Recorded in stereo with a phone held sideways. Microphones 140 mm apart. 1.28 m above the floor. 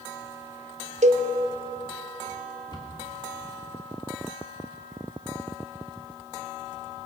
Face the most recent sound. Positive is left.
turn(degrees=35)  # may be behind; listen again after turning